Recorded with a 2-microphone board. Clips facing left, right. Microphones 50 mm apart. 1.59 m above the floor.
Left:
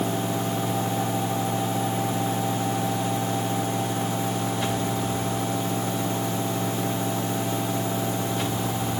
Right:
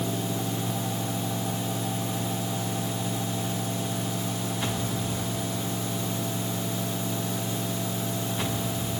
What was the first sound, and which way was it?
Only background noise.